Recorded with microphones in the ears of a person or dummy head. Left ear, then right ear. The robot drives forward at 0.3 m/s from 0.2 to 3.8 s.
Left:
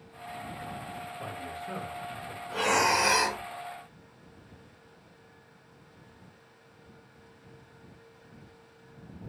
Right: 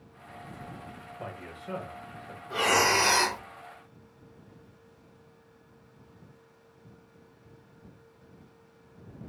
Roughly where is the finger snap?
No finger snap in this recording.